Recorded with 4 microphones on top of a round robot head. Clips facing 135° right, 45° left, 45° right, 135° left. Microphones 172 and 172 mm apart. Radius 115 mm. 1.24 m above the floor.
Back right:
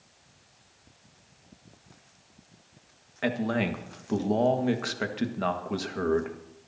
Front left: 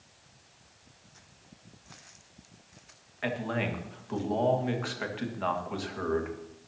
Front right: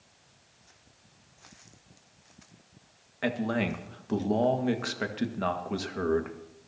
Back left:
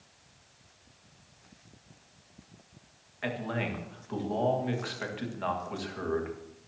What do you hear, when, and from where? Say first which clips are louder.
3.2 s a man speaking: back right 4 dB, front right 5 dB; 90° right, 1.7 m